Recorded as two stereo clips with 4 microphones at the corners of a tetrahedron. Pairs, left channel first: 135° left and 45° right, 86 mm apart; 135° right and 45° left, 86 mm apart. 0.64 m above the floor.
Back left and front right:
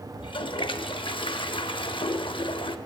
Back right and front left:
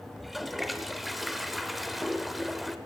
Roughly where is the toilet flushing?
Behind left.